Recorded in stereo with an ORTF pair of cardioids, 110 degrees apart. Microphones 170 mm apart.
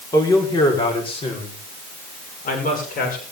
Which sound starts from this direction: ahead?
A man speaking, at 0.1 s.